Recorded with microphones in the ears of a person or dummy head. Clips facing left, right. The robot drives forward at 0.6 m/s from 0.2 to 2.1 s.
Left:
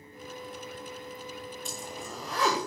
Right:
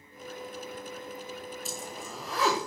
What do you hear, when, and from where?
1.6 s a zipper: 10° right (ahead or behind), 1.0 m